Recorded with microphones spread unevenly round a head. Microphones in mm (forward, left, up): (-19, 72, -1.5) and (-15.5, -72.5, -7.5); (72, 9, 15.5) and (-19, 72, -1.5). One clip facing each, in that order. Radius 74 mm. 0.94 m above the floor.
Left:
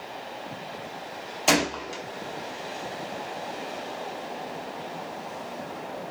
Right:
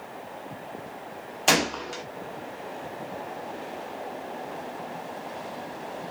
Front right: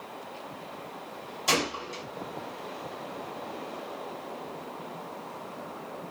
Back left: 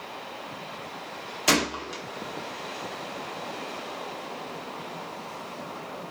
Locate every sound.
1.5 s a gunshot: 175° left, 0.6 m